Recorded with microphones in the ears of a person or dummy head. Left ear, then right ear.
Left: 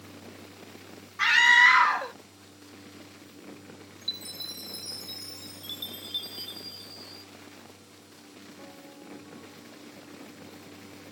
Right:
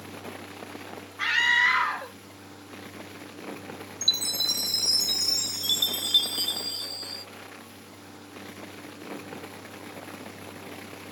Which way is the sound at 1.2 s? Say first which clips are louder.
Left 4 dB; 25° left (ahead or behind).